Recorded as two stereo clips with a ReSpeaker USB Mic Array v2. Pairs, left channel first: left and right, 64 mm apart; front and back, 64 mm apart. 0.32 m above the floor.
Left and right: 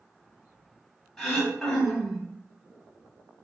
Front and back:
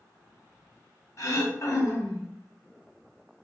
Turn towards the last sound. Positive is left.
turn(degrees=10)